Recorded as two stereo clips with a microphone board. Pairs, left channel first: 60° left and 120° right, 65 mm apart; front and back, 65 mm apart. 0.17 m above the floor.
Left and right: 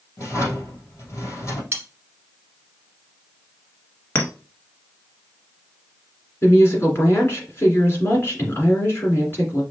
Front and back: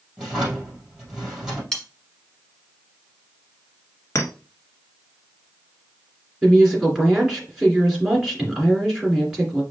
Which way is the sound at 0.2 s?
105° left.